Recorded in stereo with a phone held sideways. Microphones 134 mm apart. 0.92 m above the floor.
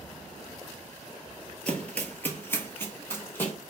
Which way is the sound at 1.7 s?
10° left (ahead or behind).